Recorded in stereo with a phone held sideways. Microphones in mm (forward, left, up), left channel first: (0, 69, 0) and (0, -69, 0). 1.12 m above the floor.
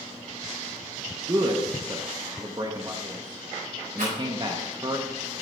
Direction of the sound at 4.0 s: 80° right.